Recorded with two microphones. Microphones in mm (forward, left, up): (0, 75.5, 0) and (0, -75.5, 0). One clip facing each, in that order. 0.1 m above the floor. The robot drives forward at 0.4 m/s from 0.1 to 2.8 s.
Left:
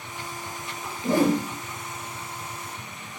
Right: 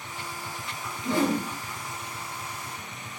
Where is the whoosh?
45° left (ahead or behind), 0.8 m.